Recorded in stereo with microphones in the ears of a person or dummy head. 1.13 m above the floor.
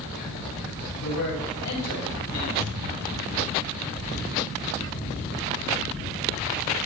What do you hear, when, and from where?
1.0 s a man speaking: 80° left, 8.5 m; by 2.5 s 85° left, 9 m
2.6 s a thud: 75° right (ahead or behind), 4 m